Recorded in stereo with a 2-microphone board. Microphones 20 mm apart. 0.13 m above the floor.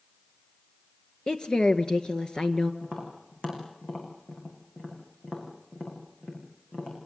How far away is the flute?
No flute in this recording.